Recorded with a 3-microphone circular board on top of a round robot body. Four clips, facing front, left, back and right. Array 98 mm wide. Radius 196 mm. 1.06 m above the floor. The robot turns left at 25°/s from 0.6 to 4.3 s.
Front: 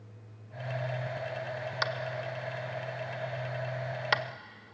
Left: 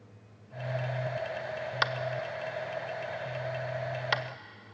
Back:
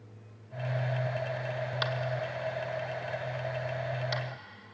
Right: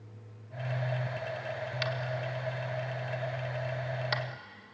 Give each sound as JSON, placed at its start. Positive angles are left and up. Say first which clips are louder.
{"t": 1.8, "sound": "tapping", "louder": "left 4 dB, even", "azimuth_deg": 80, "distance_m": 1.1}